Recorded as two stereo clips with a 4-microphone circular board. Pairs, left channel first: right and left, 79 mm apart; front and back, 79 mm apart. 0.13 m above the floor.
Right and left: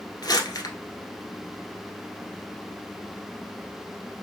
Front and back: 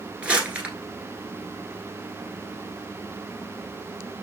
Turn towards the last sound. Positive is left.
turn(degrees=-110)